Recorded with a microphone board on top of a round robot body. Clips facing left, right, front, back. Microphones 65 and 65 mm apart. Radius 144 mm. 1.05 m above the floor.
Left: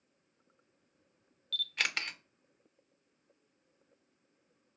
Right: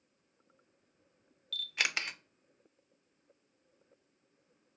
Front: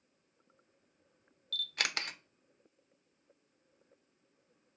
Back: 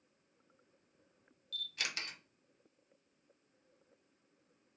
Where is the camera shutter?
5° right, 0.5 m.